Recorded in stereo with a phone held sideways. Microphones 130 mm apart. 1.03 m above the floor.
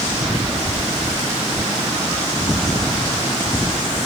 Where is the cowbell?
I don't hear a cowbell.